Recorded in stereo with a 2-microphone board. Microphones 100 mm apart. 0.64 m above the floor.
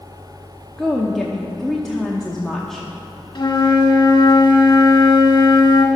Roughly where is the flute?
Left.